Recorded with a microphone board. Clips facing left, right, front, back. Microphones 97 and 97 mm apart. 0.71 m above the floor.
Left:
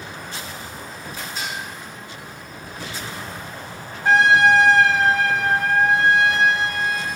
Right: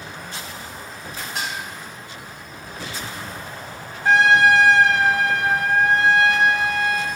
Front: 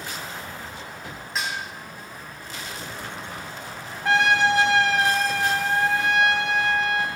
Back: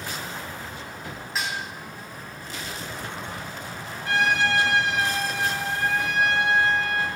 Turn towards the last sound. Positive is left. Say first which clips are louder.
# even, front 3 dB
turn(degrees=0)